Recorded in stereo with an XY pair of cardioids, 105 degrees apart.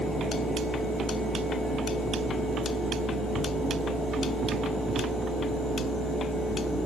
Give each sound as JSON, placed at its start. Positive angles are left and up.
{"t": 0.0, "sound": "a fan", "azimuth_deg": 45, "distance_m": 3.0}